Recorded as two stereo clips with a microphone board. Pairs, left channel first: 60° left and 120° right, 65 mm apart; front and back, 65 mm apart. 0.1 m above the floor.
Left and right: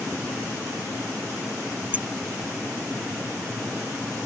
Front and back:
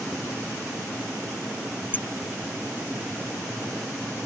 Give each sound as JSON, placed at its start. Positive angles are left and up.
{"t": 1.9, "sound": "a clink", "azimuth_deg": -55}